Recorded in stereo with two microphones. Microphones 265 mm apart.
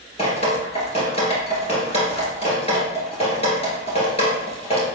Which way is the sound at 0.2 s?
25° left (ahead or behind).